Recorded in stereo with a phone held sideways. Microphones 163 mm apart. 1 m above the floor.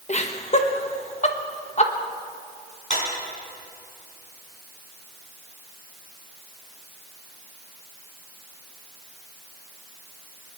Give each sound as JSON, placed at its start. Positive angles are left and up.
{"t": 0.1, "sound": "laughter", "side_deg": 45, "distance_m": 1.4}
{"t": 2.9, "sound": "a clap", "side_deg": 50, "distance_m": 6.5}